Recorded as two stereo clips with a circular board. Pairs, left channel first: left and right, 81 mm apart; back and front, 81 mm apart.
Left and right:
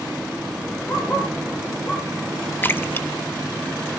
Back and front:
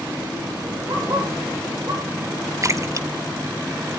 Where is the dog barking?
55° left, 9.5 m; by 2.1 s 50° left, 9.5 m.